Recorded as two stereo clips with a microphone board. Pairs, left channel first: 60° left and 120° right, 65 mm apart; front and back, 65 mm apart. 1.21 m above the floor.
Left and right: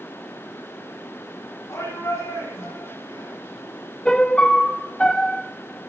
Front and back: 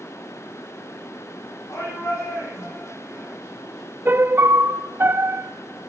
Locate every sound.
1.7 s a shout: 35° left, 8.5 m; by 3.3 s 40° left, 7 m
4.0 s a piano: 135° left, 0.8 m